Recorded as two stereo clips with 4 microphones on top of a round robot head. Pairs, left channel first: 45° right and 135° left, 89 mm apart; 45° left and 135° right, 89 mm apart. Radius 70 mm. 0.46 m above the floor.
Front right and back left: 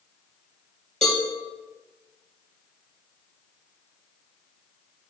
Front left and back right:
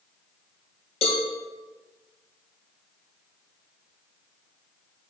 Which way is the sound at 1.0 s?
40° left.